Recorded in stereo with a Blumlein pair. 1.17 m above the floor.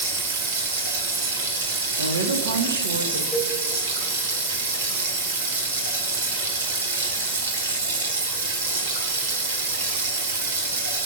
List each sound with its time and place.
0.0 s running water: 60° right, 2.0 m
2.0 s a woman speaking: 70° right, 1.2 m
3.3 s a cowbell: 10° left, 1.4 m